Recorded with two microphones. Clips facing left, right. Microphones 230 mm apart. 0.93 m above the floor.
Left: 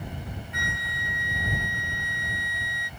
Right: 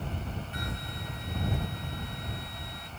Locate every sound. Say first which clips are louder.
0.5 s a flute: even; 35° right (ahead or behind)